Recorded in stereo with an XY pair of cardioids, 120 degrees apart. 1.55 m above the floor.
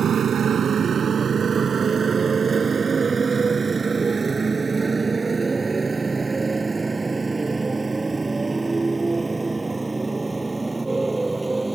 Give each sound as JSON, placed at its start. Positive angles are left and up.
{"t": 0.0, "sound": "a motorcycle", "azimuth_deg": -45}